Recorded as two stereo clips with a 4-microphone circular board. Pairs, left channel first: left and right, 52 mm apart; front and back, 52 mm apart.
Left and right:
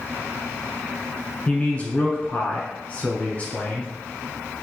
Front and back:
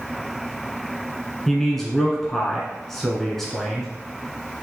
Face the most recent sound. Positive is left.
turn(degrees=80)